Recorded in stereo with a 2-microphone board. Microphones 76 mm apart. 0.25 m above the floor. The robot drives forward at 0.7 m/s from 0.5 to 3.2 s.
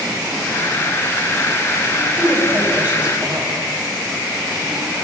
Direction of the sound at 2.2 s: 20° right (ahead or behind).